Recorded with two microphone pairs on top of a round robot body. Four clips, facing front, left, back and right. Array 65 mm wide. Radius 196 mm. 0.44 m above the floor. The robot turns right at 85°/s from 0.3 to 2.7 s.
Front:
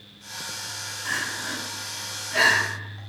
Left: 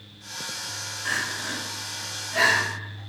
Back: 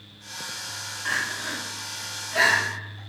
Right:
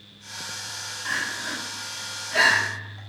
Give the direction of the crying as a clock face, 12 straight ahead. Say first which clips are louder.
Even, back 1 dB; 6 o'clock.